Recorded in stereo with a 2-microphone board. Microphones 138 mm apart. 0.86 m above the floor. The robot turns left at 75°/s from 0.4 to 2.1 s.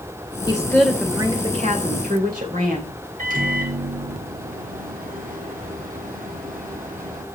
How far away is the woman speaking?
About 2.5 m.